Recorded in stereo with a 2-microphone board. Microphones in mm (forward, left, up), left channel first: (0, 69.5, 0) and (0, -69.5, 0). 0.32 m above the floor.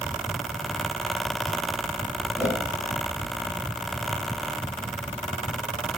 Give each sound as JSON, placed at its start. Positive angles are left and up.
{"t": 2.4, "sound": "a whoosh", "side_deg": -10, "distance_m": 3.0}